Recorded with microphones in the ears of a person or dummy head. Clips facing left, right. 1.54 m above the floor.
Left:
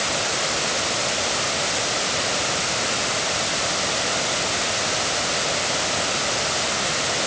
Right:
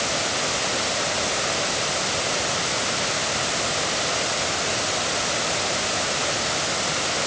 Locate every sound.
Only background noise.